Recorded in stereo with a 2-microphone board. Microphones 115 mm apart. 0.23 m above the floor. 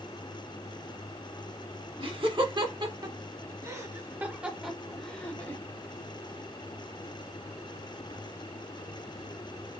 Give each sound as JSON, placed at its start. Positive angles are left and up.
{"t": 2.0, "sound": "laughter", "side_deg": -55, "distance_m": 1.9}